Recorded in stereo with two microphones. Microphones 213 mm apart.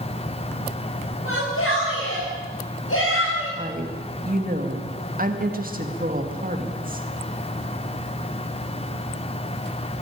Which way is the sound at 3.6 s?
40° right (ahead or behind).